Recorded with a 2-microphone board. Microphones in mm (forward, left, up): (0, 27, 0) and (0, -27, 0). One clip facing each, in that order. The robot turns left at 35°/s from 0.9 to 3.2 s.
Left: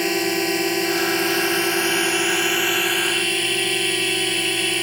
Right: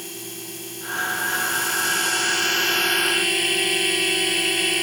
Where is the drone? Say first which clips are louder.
Left 16 dB; 80° left; by 4.8 s straight ahead.